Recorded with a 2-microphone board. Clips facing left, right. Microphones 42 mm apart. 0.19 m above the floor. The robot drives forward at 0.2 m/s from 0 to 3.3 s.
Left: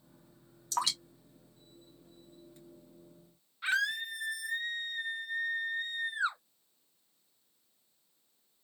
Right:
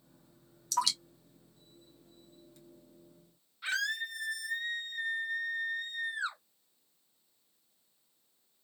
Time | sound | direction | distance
0.7 | dripping | 30° left (ahead or behind) | 1.5 m
3.6 | a scream | 20° left (ahead or behind) | 1.4 m